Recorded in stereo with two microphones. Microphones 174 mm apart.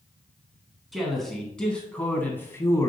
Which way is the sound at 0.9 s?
Centre (ahead or behind).